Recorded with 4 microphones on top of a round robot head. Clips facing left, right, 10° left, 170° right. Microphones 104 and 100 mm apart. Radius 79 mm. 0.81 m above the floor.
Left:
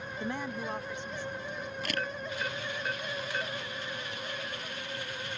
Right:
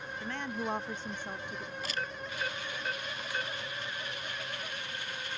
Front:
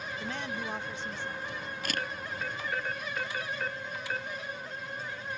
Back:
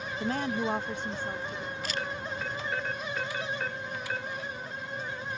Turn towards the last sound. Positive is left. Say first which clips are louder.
# left 3 dB, front 1 dB
turn(degrees=50)